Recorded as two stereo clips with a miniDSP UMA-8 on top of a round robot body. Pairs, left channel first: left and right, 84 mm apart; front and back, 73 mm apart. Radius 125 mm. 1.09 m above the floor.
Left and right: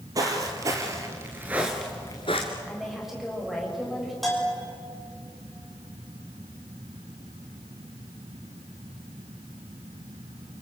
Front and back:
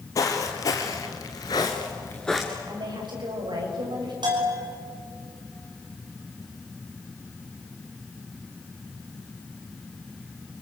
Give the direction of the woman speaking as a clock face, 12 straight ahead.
6 o'clock.